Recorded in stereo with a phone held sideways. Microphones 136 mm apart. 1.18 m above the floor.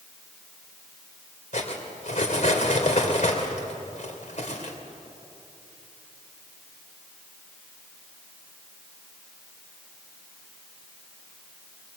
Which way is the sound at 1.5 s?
65° left (ahead or behind).